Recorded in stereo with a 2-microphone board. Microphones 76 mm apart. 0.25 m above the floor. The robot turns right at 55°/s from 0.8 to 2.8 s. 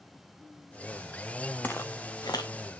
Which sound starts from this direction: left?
Footsteps, at 1.6 s.